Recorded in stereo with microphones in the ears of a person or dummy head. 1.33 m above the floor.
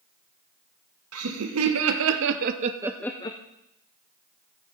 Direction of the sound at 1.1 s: 80° right.